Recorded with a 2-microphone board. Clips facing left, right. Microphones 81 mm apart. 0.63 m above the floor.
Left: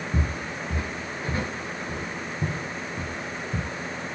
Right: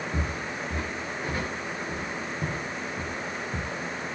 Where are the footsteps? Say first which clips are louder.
Left 1 dB; 20° left (ahead or behind), 2 m; by 3.7 s 25° left (ahead or behind), 5.5 m.